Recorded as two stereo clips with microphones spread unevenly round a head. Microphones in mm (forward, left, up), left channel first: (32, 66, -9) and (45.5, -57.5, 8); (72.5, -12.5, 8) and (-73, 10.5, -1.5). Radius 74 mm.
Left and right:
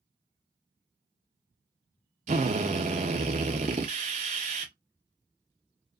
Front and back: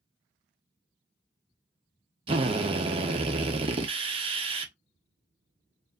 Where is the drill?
135° right, 1.1 m.